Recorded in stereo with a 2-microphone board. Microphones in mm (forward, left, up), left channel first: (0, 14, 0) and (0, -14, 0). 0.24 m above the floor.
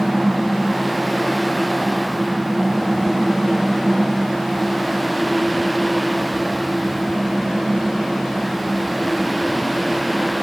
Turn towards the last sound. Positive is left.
No sound to turn to.